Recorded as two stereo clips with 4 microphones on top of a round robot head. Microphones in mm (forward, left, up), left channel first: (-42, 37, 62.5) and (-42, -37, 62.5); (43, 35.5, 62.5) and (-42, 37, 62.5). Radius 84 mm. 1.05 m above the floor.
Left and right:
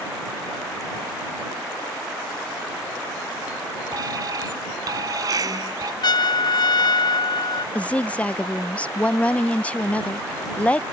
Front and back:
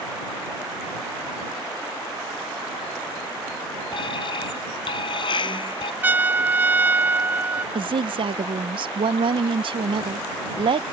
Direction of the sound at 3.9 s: 40° right.